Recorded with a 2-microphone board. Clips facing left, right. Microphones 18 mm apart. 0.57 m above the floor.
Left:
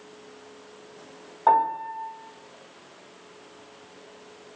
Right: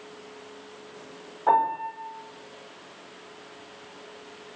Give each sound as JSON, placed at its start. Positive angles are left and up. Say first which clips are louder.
{"t": 1.5, "sound": "a piano", "louder": "left 2 dB", "side_deg": 45, "distance_m": 1.1}